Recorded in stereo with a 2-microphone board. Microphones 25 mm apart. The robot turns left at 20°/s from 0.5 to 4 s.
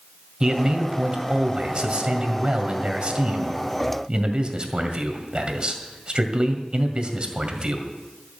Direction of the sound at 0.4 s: 50° right.